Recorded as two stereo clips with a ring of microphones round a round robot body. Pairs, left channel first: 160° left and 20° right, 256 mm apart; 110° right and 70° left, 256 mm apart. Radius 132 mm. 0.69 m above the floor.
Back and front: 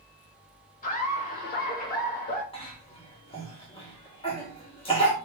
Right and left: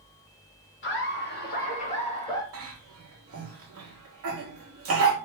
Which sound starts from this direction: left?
A cough, at 2.5 s.